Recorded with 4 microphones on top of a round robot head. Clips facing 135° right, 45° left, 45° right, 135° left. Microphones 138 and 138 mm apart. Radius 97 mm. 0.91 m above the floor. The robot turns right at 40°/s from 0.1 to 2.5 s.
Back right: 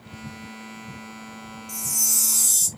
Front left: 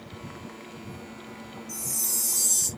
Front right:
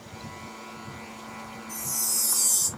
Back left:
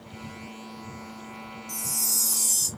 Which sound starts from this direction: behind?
A chime, at 1.7 s.